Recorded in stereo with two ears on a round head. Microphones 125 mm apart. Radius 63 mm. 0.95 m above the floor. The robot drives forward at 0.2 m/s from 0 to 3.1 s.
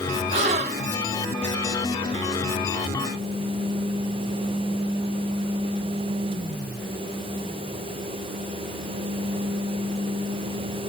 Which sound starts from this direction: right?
A gasp, at 0.3 s.